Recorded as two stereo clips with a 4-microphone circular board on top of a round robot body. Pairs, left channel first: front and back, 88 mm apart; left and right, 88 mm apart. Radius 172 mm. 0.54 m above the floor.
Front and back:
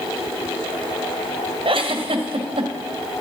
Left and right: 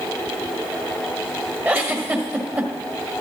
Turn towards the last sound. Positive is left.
turn(degrees=-160)